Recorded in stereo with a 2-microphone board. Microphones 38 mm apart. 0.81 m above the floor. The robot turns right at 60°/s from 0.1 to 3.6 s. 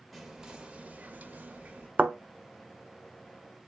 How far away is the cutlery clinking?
I don't hear cutlery clinking.